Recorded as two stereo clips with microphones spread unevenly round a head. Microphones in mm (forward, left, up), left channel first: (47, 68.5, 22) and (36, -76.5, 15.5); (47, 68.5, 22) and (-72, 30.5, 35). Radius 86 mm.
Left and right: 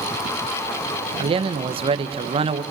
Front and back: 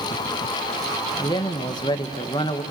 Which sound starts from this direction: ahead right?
A man speaking, at 1.2 s.